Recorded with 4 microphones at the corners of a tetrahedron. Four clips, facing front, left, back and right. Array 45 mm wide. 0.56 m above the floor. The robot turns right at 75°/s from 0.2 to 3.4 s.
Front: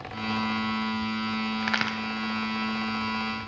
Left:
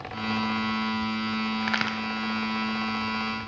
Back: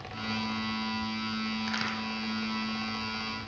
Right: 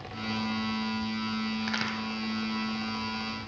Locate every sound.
1.6 s a crack: 30° left, 0.8 m; by 2.0 s 55° left, 0.8 m